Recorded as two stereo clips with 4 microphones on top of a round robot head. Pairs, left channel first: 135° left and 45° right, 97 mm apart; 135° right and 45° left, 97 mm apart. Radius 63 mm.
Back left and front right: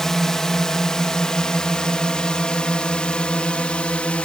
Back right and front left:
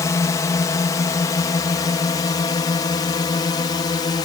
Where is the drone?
140° right; by 4.3 s 150° right.